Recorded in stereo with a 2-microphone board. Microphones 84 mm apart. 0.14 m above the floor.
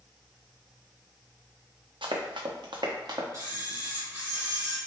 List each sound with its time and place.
2.0 s running footsteps: 80° right, 0.9 m; by 3.2 s 50° right (ahead or behind), 1.1 m
3.3 s a camera shutter: 40° right (ahead or behind), 2.0 m